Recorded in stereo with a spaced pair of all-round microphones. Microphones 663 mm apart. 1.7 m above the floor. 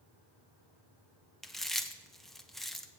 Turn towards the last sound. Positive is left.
turn(degrees=0)  # may be behind; listen again after turning